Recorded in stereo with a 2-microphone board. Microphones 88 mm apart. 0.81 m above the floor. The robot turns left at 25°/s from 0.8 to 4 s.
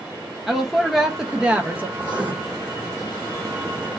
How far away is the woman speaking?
About 0.5 m.